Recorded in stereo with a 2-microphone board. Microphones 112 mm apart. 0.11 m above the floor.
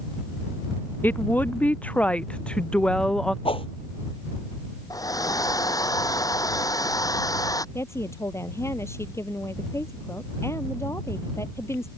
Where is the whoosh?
55° left (ahead or behind).